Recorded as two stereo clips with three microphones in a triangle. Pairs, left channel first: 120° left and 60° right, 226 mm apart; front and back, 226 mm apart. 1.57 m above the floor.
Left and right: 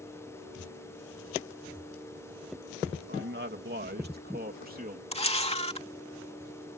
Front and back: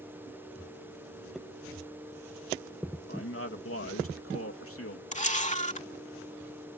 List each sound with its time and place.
3.1 s a man speaking: 25° right; by 5.0 s 10° right
5.1 s a camera shutter: 55° left